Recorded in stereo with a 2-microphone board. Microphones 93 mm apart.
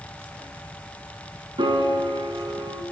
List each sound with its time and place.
1.6 s a piano: 65° right (ahead or behind), 1.0 m